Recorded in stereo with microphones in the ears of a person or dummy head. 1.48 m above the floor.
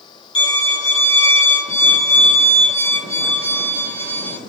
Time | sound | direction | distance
0.3 | a violin | 25° left (ahead or behind) | 1.5 m